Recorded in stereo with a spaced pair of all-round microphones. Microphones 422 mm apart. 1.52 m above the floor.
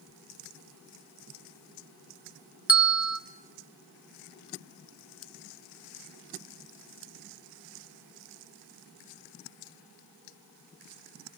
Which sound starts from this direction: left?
A bell, at 2.7 s.